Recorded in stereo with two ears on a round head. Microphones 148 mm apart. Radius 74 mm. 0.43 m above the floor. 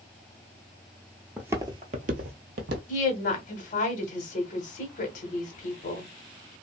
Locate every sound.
1.4 s footsteps: 5° right (ahead or behind), 0.6 m; by 2.8 s 70° right (ahead or behind), 1.0 m
2.9 s a woman speaking: 50° left (ahead or behind), 1.1 m